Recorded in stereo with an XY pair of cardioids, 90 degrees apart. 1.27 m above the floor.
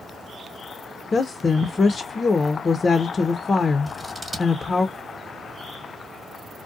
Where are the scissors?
10° right, 1.2 m.